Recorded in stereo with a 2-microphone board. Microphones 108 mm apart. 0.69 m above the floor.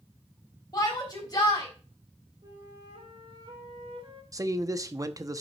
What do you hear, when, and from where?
0.7 s a shout: 35° left (ahead or behind), 4 m
2.4 s a flute: 50° right (ahead or behind), 3 m
4.3 s a man speaking: 30° right (ahead or behind), 0.8 m